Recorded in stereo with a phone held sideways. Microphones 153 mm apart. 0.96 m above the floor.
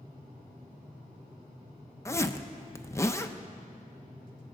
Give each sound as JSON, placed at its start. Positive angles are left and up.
{"t": 2.0, "sound": "a zipper", "side_deg": 20, "distance_m": 0.6}